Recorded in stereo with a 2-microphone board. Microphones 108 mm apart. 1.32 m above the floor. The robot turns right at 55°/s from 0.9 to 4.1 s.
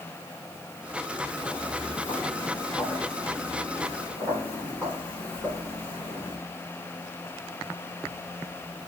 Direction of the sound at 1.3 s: 45° left (ahead or behind).